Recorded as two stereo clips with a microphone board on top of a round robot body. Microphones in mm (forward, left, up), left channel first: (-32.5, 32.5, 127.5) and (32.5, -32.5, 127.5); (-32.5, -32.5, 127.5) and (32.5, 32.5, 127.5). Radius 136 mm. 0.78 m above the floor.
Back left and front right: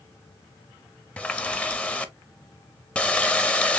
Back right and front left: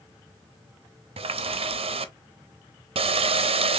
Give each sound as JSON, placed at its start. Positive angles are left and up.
{"t": 1.2, "sound": "a running tap", "azimuth_deg": 60, "distance_m": 0.6}